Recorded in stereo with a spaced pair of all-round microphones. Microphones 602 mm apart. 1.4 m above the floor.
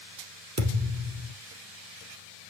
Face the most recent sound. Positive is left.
turn(degrees=-25)  # may be behind; listen again after turning